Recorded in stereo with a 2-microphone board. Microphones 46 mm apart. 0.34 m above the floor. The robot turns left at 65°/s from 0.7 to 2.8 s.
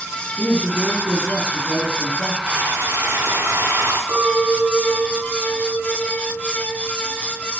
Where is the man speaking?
20° right, 3.5 m; by 2.4 s 125° right, 3.5 m.